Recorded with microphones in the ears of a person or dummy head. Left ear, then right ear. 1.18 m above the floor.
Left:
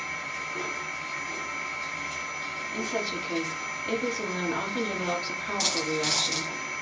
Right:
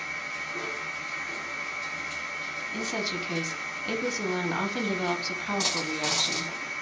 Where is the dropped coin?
10° left (ahead or behind), 1.1 m.